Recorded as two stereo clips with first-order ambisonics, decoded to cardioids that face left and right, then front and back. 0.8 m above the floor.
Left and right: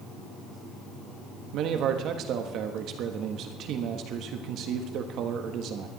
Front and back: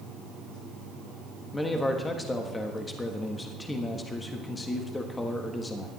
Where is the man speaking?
70° right, 1.4 m.